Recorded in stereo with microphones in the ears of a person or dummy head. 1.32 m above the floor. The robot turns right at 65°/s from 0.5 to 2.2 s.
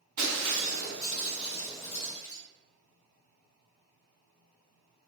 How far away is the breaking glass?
About 1.8 m.